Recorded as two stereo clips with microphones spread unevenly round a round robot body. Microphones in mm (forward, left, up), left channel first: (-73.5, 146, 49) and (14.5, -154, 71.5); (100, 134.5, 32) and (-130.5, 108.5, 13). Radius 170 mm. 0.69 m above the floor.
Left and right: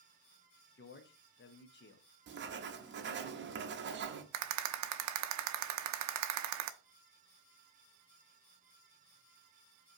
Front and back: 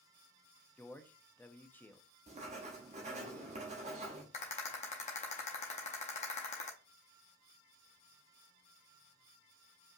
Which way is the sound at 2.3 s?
125° right.